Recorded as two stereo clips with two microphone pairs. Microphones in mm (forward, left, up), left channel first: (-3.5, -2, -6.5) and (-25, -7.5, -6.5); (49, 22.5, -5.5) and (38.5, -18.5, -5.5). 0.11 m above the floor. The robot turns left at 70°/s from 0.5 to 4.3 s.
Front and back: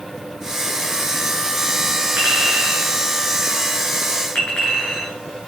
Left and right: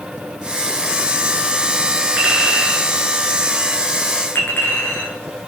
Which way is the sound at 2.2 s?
155° right.